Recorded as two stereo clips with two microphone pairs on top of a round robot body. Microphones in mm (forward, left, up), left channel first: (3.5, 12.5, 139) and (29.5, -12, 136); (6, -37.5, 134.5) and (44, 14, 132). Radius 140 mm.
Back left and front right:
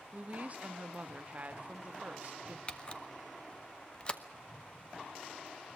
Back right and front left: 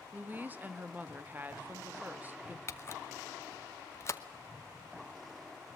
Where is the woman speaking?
5° right, 1.9 m.